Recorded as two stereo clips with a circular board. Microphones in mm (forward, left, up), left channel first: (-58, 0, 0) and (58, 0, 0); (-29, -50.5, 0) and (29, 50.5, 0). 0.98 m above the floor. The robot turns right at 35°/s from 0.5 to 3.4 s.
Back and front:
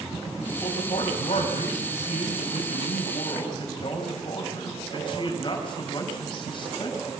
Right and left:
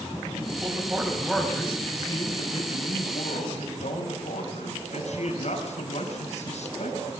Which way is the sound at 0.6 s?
130° left.